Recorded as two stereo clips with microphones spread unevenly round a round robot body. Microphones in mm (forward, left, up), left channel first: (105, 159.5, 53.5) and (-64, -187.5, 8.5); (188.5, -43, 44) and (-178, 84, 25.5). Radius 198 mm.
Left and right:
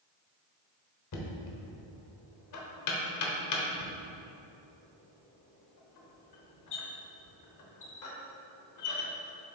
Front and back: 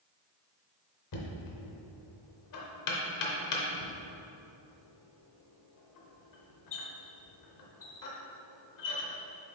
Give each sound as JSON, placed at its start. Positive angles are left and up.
{"t": 1.1, "sound": "knocking", "azimuth_deg": 20, "distance_m": 1.2}